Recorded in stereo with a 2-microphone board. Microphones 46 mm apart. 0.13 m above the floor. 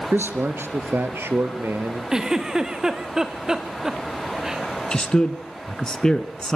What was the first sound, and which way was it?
A man speaking, 55° right (ahead or behind).